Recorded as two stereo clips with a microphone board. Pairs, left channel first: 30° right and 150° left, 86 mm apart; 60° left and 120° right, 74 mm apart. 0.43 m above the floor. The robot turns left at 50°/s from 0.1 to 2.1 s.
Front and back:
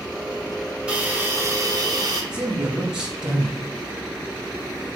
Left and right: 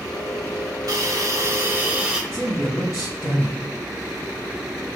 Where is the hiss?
135° right, 1.0 m; by 2.2 s 165° left, 1.0 m.